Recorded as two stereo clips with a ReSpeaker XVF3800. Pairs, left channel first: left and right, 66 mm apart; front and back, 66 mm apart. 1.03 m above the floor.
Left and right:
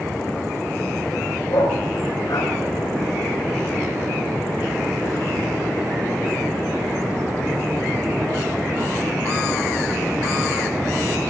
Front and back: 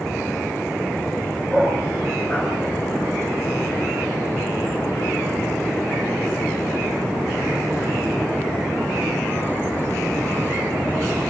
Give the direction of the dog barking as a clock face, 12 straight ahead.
9 o'clock.